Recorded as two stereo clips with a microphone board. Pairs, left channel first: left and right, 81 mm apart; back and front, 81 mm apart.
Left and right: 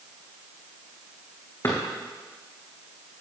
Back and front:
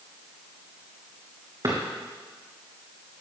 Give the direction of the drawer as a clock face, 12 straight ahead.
11 o'clock.